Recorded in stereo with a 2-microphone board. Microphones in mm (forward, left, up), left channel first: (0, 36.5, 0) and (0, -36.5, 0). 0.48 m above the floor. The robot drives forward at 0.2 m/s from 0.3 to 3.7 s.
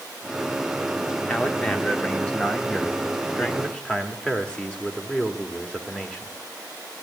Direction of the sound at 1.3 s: 15° left (ahead or behind).